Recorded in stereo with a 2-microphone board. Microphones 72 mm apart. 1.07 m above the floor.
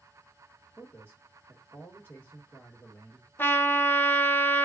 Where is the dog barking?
No dog barking in this recording.